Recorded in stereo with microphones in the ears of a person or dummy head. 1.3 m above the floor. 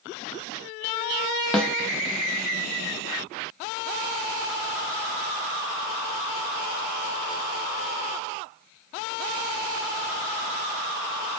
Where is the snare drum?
5° left (ahead or behind), 0.6 m.